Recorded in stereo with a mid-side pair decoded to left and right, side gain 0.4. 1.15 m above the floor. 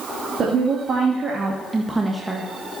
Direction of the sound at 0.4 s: 50° right.